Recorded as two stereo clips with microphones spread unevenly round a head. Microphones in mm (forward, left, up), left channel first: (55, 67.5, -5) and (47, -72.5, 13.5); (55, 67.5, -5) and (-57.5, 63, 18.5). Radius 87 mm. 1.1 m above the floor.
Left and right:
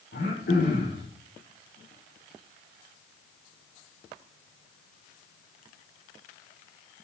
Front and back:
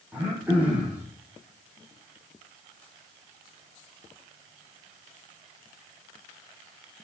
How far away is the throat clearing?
About 9.5 m.